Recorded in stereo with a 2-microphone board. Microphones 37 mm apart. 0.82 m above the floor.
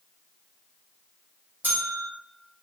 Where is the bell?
55° right (ahead or behind), 0.9 m.